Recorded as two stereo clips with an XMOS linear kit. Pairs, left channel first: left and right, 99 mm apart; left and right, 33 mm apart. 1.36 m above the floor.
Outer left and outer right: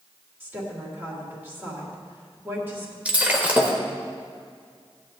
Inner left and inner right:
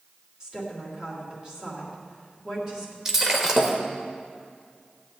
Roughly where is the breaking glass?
Centre.